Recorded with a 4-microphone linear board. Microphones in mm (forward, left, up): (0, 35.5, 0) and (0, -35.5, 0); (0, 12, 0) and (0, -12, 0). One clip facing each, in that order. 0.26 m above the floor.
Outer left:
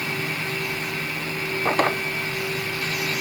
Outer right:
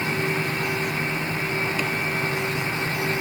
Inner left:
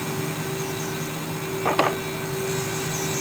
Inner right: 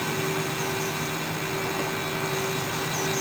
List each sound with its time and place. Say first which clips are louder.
1.6 s a drawer: outer left 5 dB, inner left 7 dB; 55° left (ahead or behind)